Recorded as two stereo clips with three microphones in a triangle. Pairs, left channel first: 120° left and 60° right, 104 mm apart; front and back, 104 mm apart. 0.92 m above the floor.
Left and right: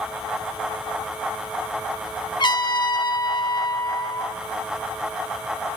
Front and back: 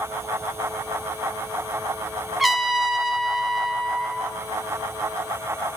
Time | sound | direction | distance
2.4 | a trumpet | 90° left | 0.6 m